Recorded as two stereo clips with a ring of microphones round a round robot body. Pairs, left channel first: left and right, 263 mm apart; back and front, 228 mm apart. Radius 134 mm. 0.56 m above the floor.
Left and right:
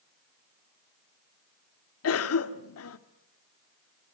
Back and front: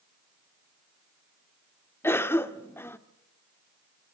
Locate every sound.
2.0 s a cough: 100° left, 1.4 m